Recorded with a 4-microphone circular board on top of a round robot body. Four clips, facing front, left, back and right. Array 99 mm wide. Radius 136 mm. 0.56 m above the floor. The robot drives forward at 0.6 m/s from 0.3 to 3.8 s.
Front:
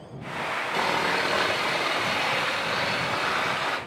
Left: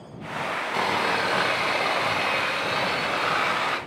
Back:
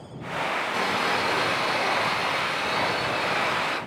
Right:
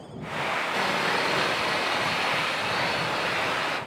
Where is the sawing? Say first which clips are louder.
Left 4 dB, front 2 dB; 50° left, 4 m; by 3.8 s 75° left, 3 m.